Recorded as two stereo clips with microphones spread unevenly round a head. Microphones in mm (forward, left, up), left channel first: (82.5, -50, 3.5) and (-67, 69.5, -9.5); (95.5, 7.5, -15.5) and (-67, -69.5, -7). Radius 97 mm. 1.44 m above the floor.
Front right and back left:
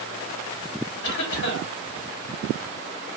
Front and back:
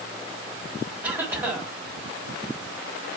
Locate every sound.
1.0 s a cough: 75° right, 2.5 m